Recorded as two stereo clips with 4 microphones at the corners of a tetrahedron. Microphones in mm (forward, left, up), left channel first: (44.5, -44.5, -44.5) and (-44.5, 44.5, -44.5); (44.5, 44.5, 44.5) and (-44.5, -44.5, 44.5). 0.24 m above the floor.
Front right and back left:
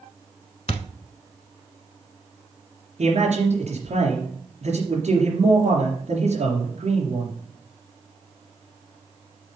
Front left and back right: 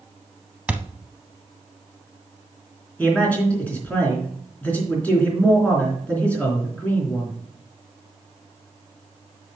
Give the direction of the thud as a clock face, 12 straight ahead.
2 o'clock.